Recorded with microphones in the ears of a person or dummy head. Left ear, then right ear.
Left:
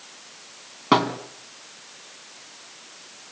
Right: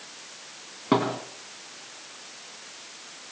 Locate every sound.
0.9 s a thud: 35° left (ahead or behind), 3 m